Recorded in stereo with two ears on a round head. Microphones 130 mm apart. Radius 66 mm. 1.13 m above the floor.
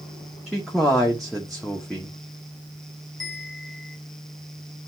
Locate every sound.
0.5 s a man speaking: centre (ahead or behind), 1.1 m
3.2 s a bell: centre (ahead or behind), 3 m